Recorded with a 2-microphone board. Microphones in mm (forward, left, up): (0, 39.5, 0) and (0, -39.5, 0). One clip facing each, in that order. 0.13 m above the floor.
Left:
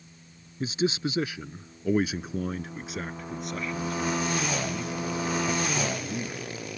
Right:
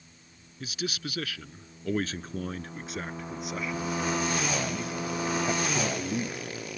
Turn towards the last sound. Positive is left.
turn(degrees=-25)  # may be behind; listen again after turning